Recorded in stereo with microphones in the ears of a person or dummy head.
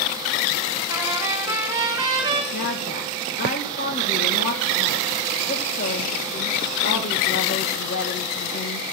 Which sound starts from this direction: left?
A woman speaking, at 2.5 s.